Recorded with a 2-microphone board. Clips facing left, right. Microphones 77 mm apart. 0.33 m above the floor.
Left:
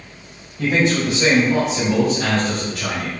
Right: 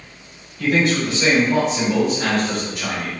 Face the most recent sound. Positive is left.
turn(degrees=-30)  # may be behind; listen again after turning